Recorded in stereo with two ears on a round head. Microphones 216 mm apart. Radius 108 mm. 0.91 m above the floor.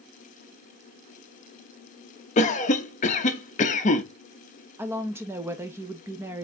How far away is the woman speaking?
About 1.0 m.